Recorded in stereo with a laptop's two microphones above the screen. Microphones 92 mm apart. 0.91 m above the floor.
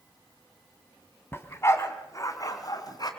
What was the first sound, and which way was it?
A dog barking, 25° left (ahead or behind).